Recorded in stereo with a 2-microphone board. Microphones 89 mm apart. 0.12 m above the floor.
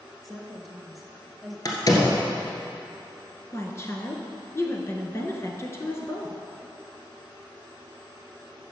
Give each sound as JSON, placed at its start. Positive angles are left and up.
{"t": 0.2, "sound": "a woman speaking", "side_deg": 0, "distance_m": 1.3}
{"t": 1.6, "sound": "a door slam", "side_deg": 45, "distance_m": 1.7}
{"t": 3.5, "sound": "a woman speaking", "side_deg": 30, "distance_m": 1.4}